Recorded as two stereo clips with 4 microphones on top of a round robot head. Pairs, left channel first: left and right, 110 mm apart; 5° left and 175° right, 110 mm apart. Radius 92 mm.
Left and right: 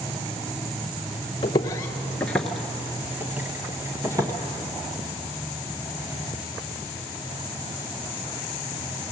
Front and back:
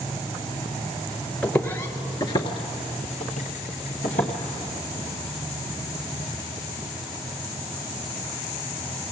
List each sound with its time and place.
1.4 s footsteps: 85° left, 1.0 m; by 4.3 s 30° right, 1.9 m